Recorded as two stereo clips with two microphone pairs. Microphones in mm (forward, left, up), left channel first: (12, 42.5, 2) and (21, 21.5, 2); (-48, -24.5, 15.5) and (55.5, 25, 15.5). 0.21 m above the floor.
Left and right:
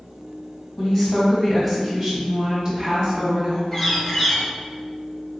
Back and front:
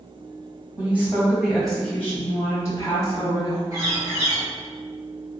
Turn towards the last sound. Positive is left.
turn(degrees=60)